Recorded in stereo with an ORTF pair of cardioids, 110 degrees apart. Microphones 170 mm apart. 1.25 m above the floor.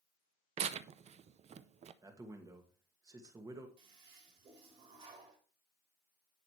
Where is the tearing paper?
40° right, 0.6 m.